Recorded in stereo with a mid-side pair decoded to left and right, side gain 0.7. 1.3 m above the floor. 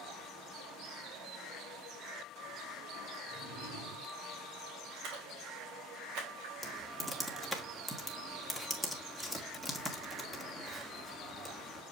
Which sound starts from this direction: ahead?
Typing on a keyboard, at 6.6 s.